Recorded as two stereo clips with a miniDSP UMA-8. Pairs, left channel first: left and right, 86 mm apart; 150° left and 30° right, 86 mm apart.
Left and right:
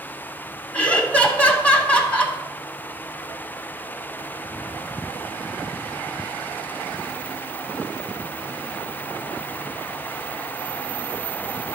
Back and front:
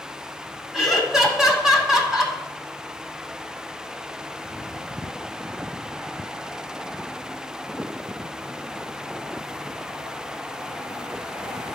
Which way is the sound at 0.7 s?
45° left.